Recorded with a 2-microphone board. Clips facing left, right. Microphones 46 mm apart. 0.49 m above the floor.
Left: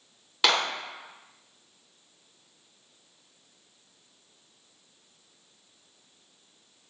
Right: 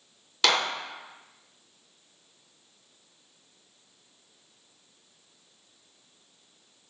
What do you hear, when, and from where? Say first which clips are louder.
0.4 s a clap: even; 10° left (ahead or behind), 4 m